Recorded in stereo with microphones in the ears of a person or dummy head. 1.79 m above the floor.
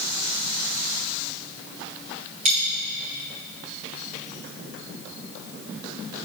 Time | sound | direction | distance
2.5 | a dropped coin | 30° right (ahead or behind) | 3 m